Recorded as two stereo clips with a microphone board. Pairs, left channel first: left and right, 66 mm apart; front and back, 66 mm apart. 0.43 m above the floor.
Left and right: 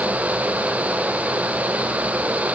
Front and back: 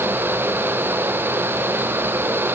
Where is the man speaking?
No man speaking in this recording.